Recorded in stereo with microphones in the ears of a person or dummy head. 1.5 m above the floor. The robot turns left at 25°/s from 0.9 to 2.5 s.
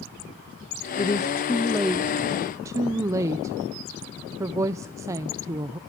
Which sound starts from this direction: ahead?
A woman speaking, at 1.0 s.